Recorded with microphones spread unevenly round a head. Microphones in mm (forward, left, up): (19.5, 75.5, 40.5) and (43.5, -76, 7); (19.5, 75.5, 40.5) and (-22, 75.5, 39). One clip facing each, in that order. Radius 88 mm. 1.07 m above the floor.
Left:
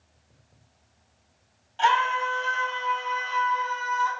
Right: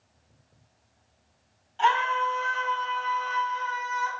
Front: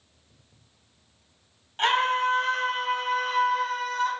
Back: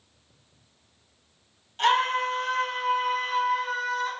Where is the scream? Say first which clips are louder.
Left 1 dB, even; 50° left, 3 m; by 4.1 s straight ahead, 2.5 m.